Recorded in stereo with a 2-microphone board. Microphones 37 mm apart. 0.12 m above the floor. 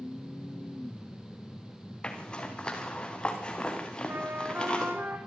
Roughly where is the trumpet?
Right.